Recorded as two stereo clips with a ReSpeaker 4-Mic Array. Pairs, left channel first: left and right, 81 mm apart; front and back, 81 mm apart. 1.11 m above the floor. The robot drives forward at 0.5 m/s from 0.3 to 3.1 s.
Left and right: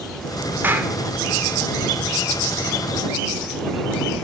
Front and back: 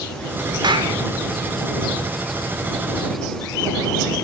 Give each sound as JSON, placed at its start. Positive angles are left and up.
{"t": 0.6, "sound": "a clap", "azimuth_deg": -155, "distance_m": 0.8}